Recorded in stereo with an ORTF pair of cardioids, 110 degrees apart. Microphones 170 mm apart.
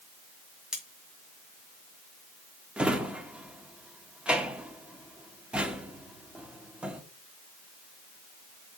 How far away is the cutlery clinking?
About 2.5 m.